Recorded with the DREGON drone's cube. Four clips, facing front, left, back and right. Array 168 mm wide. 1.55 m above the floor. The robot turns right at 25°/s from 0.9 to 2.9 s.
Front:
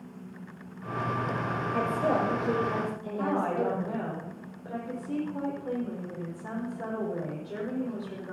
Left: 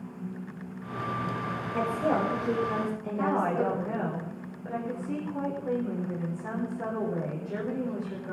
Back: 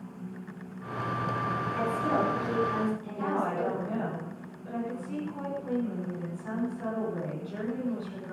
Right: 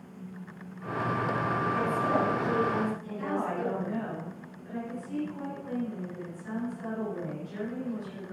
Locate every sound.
1.7 s a woman speaking: 30° left, 6 m; by 4.1 s 55° left, 6 m
3.2 s a woman speaking: 60° left, 7 m